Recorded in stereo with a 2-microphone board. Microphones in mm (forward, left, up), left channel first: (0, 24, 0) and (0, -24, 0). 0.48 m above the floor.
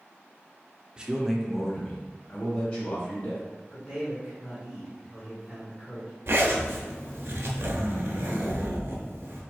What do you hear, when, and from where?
1.0 s a man speaking: 20° right (ahead or behind), 0.7 m; by 3.4 s 30° left (ahead or behind), 2.5 m
3.7 s a man speaking: 5° left (ahead or behind), 1.7 m
6.3 s a zipper: 60° right (ahead or behind), 0.9 m